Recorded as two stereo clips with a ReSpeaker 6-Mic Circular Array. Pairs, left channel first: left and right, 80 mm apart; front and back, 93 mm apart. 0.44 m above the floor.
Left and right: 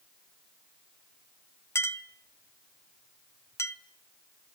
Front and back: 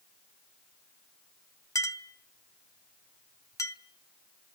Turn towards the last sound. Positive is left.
turn(degrees=45)